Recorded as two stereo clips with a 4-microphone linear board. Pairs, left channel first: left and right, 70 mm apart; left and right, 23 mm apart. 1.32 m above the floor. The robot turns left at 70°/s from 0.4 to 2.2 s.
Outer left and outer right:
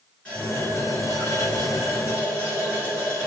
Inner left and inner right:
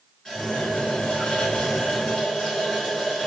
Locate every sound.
0.2 s a running tap: 165° left, 2.0 m; by 3.3 s 40° left, 2.0 m